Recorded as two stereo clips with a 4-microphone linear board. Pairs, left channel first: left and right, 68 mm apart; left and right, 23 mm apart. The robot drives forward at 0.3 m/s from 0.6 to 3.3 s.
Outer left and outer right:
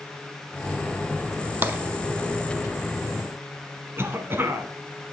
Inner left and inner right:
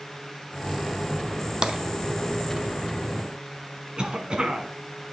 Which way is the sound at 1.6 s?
30° right (ahead or behind).